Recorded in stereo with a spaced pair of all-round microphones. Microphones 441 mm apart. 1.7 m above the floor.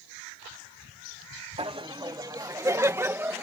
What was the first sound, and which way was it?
Laughter, 15° right (ahead or behind).